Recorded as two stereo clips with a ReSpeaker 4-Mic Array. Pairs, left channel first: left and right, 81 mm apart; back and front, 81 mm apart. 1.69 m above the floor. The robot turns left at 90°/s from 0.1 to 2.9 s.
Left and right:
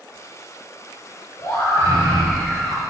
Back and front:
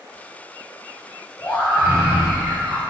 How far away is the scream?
About 2.5 m.